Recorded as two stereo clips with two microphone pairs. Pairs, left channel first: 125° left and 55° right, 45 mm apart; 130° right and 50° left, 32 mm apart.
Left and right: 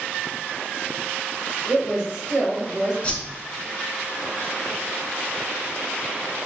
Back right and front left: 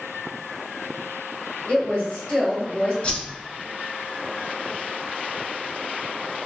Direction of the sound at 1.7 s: 150° right.